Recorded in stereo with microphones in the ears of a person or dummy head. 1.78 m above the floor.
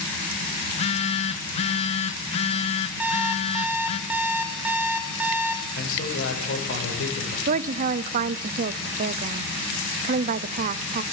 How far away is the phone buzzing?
About 1.2 m.